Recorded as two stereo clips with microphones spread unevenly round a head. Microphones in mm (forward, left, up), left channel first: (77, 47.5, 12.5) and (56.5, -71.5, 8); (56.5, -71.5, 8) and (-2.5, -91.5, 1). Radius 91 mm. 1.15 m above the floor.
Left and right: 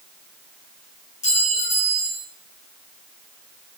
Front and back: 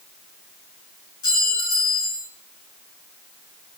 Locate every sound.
1.2 s a clink: 55° left, 7.5 m